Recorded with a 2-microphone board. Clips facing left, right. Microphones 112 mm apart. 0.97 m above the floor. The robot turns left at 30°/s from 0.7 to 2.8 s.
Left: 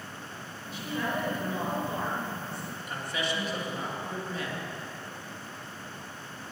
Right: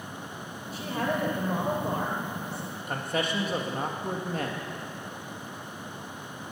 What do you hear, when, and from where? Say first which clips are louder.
0.7 s a woman speaking: right 3 dB; 40° right, 4 m; by 2.8 s 100° right, 4 m
2.9 s a man speaking: right 4 dB; 50° right (ahead or behind), 1.6 m